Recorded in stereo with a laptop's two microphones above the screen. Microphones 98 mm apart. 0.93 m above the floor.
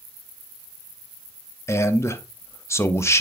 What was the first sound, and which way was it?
A man speaking, 25° left (ahead or behind).